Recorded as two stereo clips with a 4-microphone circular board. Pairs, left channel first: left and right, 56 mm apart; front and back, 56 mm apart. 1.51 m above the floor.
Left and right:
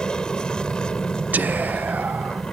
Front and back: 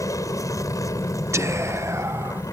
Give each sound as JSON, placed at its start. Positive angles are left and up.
{"t": 0.0, "sound": "an aircraft", "azimuth_deg": 15}
{"t": 1.3, "sound": "whispering", "azimuth_deg": -150}